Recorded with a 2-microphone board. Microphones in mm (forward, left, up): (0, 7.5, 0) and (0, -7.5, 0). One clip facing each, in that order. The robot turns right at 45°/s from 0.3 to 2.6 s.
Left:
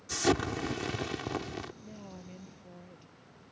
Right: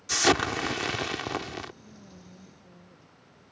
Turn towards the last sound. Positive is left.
turn(degrees=150)